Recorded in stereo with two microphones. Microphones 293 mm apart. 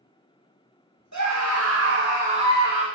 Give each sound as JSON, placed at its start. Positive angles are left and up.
{"t": 1.1, "sound": "a scream", "side_deg": -70, "distance_m": 0.8}